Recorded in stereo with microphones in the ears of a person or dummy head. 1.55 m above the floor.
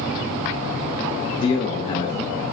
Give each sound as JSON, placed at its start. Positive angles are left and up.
{"t": 1.4, "sound": "a man speaking", "side_deg": 30, "distance_m": 0.7}